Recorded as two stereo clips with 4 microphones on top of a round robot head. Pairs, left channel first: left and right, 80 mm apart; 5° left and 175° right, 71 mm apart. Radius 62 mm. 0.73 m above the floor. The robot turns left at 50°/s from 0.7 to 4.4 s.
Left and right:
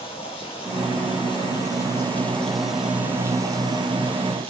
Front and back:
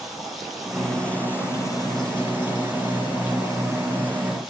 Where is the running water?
95° left, 4.5 m; by 4.5 s 90° right, 4.5 m.